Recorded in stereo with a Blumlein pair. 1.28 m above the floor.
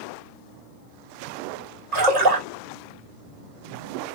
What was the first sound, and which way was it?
A splash, 35° right.